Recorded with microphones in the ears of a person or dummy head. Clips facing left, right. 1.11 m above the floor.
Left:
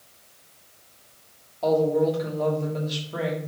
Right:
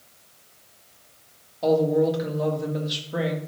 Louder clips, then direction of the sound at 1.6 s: Right 1 dB; 15° right (ahead or behind).